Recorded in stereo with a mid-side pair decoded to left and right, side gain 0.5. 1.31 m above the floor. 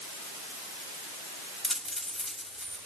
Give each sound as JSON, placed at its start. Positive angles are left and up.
{"t": 1.6, "sound": "a dropped coin", "azimuth_deg": 0, "distance_m": 3.5}